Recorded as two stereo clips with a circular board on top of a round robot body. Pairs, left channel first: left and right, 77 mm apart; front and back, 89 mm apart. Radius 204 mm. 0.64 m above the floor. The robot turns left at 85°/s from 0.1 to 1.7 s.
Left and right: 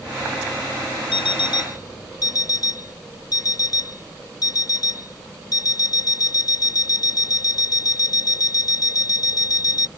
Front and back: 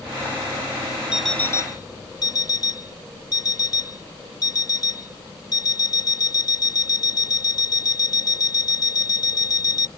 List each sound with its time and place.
1.1 s an alarm clock: 100° left; by 9.9 s 50° left